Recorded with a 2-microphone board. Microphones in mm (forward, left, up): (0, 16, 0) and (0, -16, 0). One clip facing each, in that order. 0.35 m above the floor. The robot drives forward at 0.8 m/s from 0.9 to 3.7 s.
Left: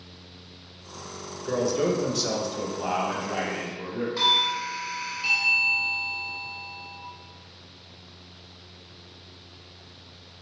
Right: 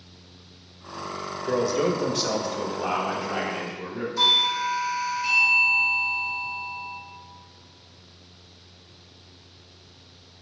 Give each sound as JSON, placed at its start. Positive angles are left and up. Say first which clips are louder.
{"t": 1.4, "sound": "a man speaking", "louder": "right 1 dB", "side_deg": -15, "distance_m": 1.0}
{"t": 4.2, "sound": "a doorbell", "louder": "right 2 dB", "side_deg": 45, "distance_m": 1.8}